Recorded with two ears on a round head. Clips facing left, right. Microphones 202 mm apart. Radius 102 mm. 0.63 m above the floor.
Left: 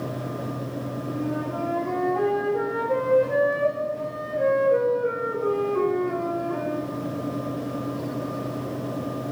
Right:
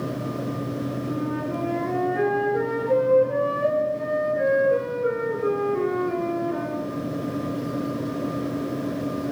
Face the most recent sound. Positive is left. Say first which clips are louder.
# left 2 dB
turn(degrees=-25)  # may be behind; listen again after turning